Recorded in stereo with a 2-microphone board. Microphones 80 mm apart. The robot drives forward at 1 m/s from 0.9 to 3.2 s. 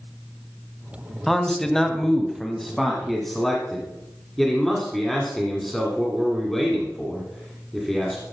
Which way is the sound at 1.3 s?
5° left (ahead or behind).